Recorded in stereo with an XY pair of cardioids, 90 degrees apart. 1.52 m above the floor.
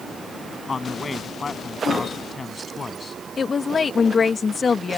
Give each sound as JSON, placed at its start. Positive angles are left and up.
{"t": 0.7, "sound": "a man speaking", "azimuth_deg": 30}
{"t": 3.4, "sound": "a woman speaking", "azimuth_deg": 40}